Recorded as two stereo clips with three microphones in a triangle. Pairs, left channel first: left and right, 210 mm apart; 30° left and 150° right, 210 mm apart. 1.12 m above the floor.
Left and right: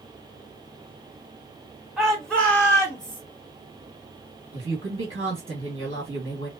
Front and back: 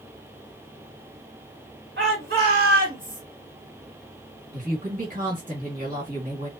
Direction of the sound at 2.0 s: Straight behind.